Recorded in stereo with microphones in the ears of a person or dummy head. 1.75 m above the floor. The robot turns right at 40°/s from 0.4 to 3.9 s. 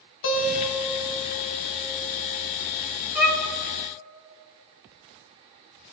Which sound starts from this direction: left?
A guitar, at 0.2 s.